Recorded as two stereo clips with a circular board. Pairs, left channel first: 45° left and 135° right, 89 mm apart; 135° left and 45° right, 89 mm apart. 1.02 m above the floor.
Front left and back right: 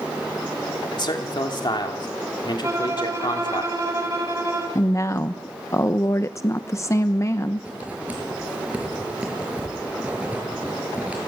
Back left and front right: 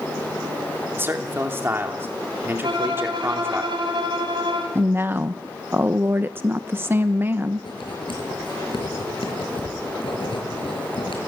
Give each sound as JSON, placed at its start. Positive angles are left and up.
{"t": 1.0, "sound": "a man speaking", "azimuth_deg": 15, "distance_m": 3.0}
{"t": 2.6, "sound": "a violin", "azimuth_deg": -75, "distance_m": 5.0}
{"t": 4.8, "sound": "a woman speaking", "azimuth_deg": 10, "distance_m": 0.7}
{"t": 7.6, "sound": "writing", "azimuth_deg": 155, "distance_m": 6.5}